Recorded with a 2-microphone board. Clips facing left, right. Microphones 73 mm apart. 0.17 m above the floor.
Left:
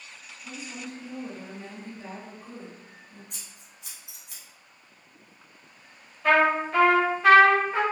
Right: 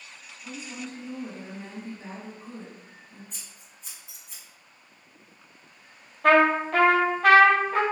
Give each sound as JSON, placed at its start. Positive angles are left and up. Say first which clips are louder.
{"t": 0.4, "sound": "a woman speaking", "louder": "right 1 dB", "side_deg": -35, "distance_m": 1.8}
{"t": 3.3, "sound": "scissors", "louder": "even", "side_deg": 75, "distance_m": 1.8}
{"t": 6.2, "sound": "a trumpet", "louder": "right 2 dB", "side_deg": -65, "distance_m": 1.2}